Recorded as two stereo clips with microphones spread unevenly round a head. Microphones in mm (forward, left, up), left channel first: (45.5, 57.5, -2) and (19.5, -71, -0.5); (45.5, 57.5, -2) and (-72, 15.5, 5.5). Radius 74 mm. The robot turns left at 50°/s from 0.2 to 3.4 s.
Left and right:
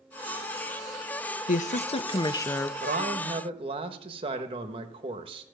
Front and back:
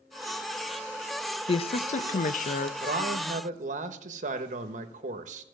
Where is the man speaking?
120° right, 1.2 m; by 5.4 s 150° right, 1.2 m.